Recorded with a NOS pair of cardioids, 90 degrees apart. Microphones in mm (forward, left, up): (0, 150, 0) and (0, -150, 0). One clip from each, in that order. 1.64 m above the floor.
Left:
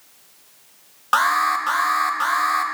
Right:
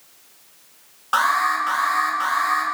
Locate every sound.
1.1 s an alarm: 35° left, 2 m